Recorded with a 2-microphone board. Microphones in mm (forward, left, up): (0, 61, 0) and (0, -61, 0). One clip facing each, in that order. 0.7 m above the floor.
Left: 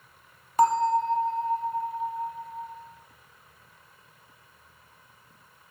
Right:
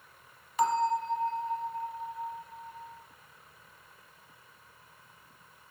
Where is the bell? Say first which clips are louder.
Left 6 dB; 45° left (ahead or behind), 0.8 m.